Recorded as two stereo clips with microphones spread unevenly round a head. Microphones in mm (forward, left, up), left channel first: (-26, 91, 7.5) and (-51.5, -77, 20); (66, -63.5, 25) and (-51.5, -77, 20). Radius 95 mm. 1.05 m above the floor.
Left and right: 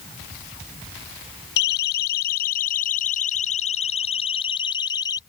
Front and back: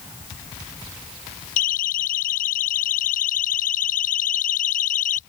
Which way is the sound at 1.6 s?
40° left.